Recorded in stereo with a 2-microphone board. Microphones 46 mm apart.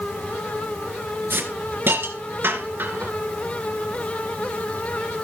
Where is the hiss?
50° right (ahead or behind), 2.5 m.